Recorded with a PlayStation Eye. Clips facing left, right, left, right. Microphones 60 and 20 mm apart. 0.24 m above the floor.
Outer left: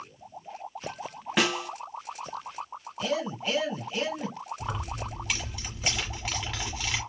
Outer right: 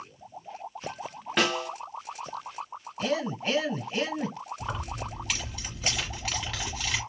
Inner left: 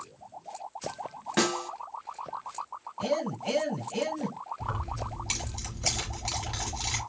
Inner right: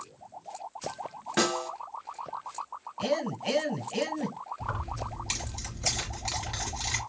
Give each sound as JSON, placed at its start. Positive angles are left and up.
{"t": 1.4, "sound": "a snare drum", "side_deg": 5, "distance_m": 0.7}
{"t": 3.0, "sound": "a man speaking", "side_deg": -35, "distance_m": 1.9}
{"t": 4.6, "sound": "keys jangling", "side_deg": 5, "distance_m": 1.4}